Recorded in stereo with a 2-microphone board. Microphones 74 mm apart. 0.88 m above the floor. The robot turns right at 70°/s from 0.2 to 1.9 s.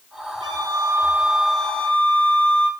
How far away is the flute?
About 1.8 m.